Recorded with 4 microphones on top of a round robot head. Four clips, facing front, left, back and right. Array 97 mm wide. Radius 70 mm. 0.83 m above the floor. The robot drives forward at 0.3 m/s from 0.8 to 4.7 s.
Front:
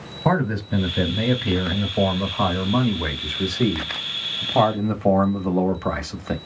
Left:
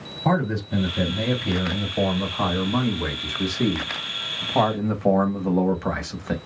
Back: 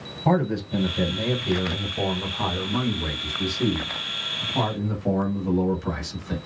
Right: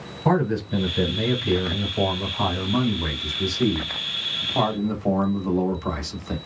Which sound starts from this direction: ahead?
A man speaking, at 0.2 s.